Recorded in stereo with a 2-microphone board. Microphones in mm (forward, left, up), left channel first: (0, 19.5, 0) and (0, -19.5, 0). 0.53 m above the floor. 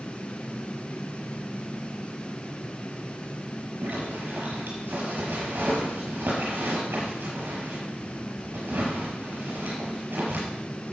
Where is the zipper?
65° right (ahead or behind), 6 m.